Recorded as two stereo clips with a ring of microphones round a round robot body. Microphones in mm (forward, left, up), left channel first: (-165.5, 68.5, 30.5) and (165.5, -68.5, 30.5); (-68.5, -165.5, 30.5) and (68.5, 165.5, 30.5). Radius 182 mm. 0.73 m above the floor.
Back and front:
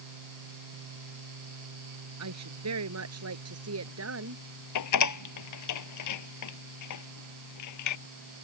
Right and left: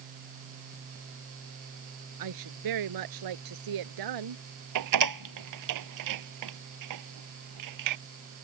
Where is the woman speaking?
30° left; by 4.4 s 35° left.